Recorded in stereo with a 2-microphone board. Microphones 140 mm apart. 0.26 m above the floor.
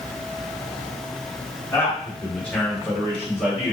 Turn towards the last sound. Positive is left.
turn(degrees=-10)  # may be behind; listen again after turning